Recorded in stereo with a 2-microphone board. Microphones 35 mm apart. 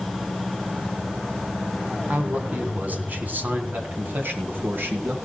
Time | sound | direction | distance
2.1 | a man speaking | 40° right (ahead or behind) | 2.5 m